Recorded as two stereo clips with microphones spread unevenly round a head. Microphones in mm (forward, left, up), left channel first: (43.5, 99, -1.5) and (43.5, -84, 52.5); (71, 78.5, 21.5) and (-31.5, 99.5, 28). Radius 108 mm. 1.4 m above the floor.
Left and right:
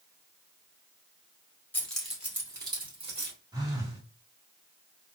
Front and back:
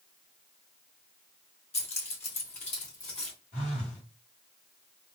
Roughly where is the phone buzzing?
Ahead right.